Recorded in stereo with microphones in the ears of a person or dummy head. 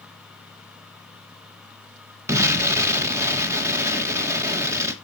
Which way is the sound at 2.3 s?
15° right (ahead or behind).